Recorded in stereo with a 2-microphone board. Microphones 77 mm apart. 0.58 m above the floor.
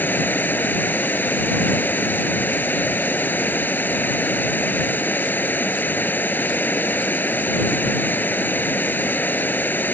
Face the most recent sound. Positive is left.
turn(degrees=25)  # may be behind; listen again after turning